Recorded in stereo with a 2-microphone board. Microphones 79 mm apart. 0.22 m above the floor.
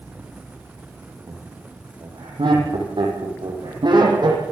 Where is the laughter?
80° right, 7.5 m; by 4.4 s 65° right (ahead or behind), 8 m.